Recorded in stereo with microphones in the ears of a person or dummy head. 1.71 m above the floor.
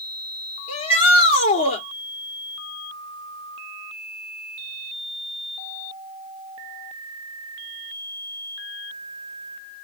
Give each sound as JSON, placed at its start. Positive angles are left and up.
{"t": 0.7, "sound": "a shout", "side_deg": 35, "distance_m": 2.5}